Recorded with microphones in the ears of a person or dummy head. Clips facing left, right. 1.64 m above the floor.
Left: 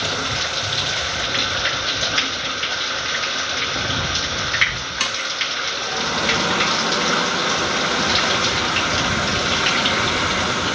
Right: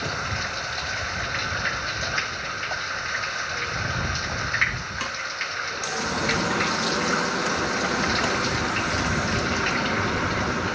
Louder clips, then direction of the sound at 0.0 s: Left 5 dB; 50° left (ahead or behind).